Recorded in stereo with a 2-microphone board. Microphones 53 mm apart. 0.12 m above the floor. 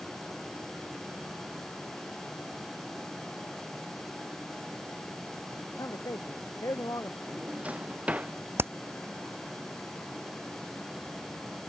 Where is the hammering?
45° right (ahead or behind).